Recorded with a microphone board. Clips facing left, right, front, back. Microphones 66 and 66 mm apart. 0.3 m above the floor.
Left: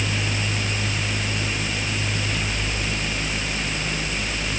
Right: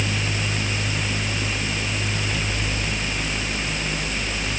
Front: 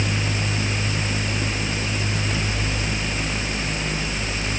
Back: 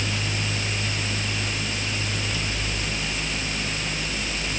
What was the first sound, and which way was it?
Only background noise.